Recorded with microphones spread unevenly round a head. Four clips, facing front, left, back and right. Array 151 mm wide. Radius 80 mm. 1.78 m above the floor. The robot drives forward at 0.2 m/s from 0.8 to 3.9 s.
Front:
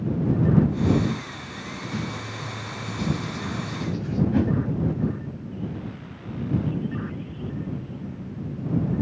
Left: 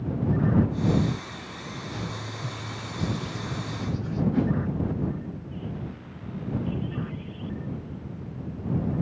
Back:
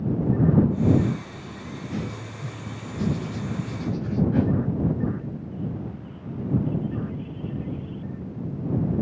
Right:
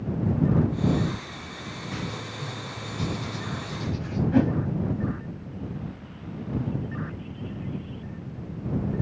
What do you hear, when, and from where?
1.9 s writing: 90° right, 6.5 m; by 4.2 s 95° right, 6.5 m
4.3 s a whoosh: 90° right, 4 m